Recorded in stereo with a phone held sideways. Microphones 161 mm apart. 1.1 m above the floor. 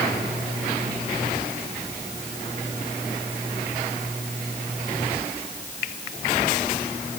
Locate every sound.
Only background noise.